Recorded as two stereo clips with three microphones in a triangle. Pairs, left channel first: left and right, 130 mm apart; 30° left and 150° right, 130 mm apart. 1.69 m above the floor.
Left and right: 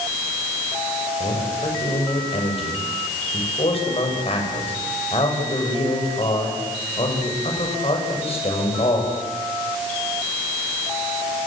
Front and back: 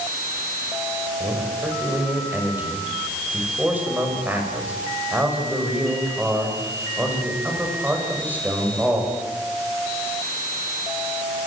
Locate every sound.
1.2 s a man speaking: 135° left, 7.5 m